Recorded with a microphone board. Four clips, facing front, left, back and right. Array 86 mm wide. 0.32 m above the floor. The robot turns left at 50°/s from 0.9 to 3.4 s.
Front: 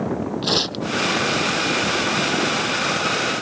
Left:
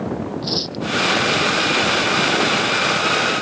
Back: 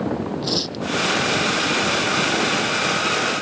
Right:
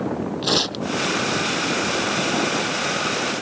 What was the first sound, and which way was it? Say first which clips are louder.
Tearing paper: right 2 dB, front 2 dB; 55° right.